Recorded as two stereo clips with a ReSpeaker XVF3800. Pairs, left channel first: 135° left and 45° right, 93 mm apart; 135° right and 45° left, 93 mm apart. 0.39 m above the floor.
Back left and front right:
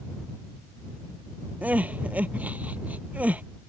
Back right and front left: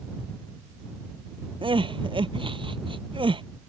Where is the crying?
30° left.